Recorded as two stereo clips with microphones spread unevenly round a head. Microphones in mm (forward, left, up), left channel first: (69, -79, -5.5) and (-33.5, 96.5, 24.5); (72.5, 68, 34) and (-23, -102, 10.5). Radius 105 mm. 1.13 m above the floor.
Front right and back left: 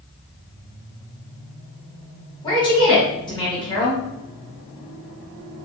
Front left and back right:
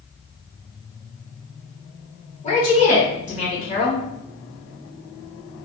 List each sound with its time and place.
2.4 s a woman speaking: 5° left, 1.5 m